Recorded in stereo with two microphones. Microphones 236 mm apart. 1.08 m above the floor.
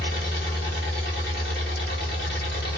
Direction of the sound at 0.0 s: 45° left (ahead or behind).